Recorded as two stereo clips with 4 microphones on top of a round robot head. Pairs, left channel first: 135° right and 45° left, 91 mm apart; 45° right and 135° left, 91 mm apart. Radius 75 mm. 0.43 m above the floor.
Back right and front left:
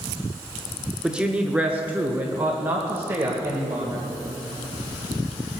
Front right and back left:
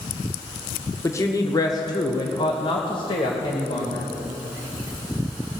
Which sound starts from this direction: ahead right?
A woman speaking, at 1.0 s.